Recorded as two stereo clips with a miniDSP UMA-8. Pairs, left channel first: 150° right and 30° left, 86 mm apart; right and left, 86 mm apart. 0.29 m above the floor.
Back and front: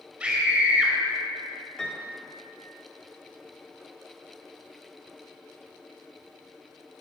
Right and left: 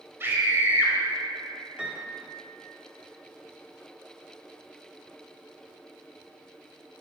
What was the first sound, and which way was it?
A scream, 85° left.